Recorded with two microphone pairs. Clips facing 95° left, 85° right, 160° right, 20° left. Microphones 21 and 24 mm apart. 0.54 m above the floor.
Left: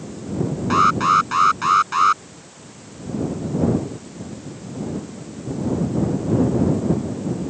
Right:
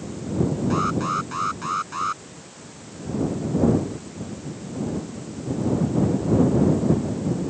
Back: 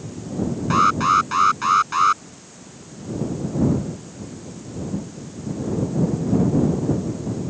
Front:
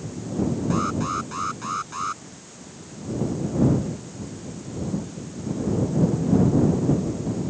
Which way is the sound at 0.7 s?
150° left.